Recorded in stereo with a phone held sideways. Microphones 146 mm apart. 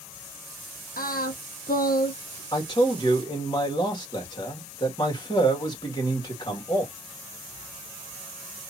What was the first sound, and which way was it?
Singing, 85° left.